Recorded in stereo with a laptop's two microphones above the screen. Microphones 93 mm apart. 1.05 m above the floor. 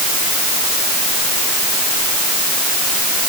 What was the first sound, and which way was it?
Only background noise.